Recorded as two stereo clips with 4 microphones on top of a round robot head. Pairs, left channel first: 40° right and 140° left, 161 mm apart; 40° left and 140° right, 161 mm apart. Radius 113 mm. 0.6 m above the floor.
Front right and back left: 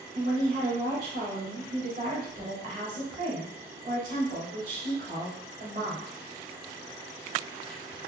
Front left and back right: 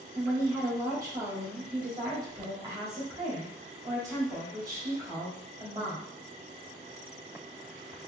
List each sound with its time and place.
0.1 s a woman speaking: 155° left, 1.9 m